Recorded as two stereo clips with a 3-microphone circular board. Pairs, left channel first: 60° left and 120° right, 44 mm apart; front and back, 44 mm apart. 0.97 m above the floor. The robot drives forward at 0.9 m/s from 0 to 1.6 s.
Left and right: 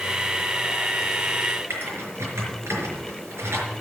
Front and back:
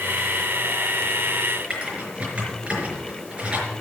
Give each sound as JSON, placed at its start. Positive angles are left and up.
{"t": 1.7, "sound": "typing on a keyboard", "azimuth_deg": -120, "distance_m": 5.0}